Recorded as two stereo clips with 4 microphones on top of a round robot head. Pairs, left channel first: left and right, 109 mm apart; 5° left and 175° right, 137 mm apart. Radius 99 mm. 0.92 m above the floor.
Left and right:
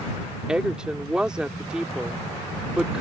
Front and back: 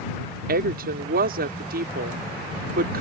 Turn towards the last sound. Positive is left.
turn(degrees=-175)